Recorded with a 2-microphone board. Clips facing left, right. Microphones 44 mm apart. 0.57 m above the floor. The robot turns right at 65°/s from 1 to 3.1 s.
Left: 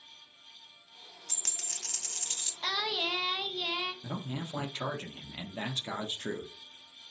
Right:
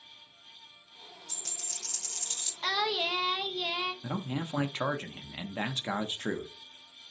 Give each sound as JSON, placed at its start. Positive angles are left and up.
{"t": 1.3, "sound": "a dropped coin", "azimuth_deg": 75, "distance_m": 0.7}
{"t": 2.6, "sound": "singing", "side_deg": -10, "distance_m": 0.6}
{"t": 4.0, "sound": "a man speaking", "side_deg": -30, "distance_m": 0.6}